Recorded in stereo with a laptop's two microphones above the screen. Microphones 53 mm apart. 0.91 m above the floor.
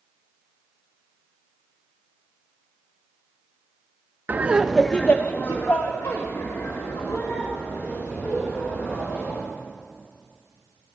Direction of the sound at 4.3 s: 35° right (ahead or behind).